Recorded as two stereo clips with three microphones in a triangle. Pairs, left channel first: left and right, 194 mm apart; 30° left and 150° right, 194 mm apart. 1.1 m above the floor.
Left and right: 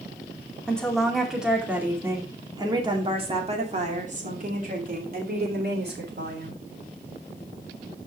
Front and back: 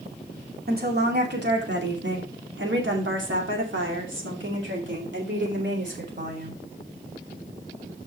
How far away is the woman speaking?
About 2.5 m.